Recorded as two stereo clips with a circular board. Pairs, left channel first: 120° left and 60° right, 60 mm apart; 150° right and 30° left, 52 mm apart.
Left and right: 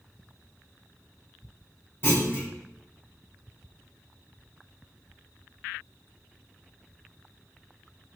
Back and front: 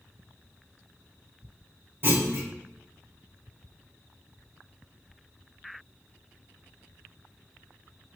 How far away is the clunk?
About 3.5 m.